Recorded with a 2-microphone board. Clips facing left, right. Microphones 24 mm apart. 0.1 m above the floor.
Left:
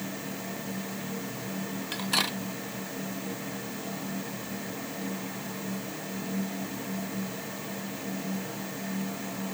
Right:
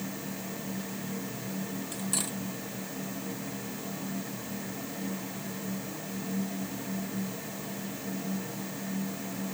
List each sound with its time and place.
1.9 s cutlery clinking: 45° left (ahead or behind)